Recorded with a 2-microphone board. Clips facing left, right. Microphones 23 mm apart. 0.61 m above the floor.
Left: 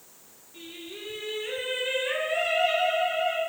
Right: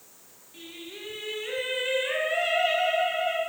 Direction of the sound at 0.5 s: 25° right (ahead or behind).